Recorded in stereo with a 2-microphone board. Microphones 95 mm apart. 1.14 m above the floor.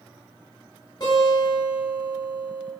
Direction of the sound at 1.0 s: 40° left (ahead or behind).